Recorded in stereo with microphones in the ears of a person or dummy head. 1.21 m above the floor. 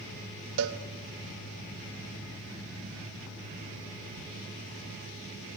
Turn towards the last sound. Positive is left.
turn(degrees=-70)  # may be behind; listen again after turning